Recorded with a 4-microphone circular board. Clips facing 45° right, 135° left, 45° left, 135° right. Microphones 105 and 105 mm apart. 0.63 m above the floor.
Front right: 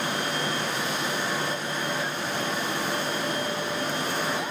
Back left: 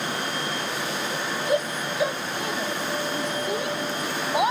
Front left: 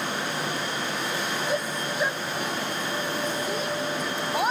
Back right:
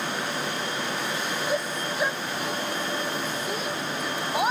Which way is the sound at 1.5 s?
135° left.